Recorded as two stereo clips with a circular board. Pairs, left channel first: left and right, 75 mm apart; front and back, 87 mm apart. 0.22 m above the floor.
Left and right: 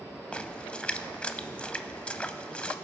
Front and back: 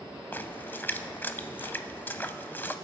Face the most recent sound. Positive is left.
turn(degrees=30)